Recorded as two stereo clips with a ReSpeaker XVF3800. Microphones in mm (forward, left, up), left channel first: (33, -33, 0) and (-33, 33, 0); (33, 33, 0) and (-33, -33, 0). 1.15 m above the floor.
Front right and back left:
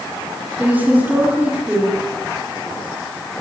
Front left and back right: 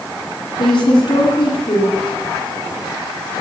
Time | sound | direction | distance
0.6 | a woman speaking | 65° left | 8 m